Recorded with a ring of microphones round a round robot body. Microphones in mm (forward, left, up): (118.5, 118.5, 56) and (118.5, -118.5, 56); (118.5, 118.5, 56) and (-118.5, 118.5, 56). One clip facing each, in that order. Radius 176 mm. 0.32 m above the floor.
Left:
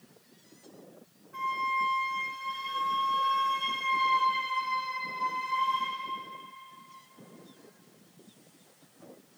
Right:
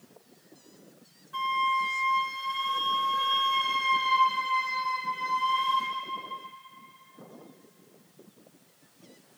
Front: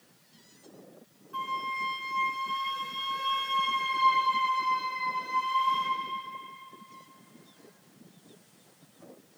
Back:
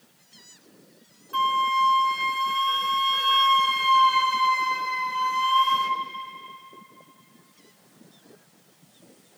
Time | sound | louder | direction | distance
1.3 | a flute | right 3 dB, back 10 dB | 150° right | 0.7 m